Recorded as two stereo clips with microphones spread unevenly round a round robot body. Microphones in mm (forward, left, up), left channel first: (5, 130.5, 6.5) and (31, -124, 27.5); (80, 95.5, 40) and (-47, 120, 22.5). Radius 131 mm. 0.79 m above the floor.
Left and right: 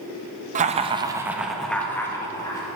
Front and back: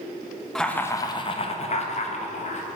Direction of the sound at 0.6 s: 110° right.